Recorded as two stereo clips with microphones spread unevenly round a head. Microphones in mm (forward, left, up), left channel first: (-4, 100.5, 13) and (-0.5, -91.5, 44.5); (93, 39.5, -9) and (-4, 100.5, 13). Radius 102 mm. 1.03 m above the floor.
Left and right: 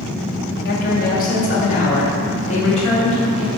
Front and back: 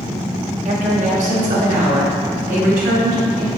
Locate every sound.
0.7 s a woman speaking: 130° left, 1.5 m; by 3.5 s 150° left, 3 m